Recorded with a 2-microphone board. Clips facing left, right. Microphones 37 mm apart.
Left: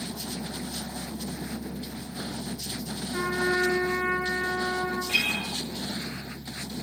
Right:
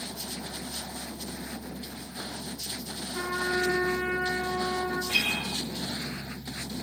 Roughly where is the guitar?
Left.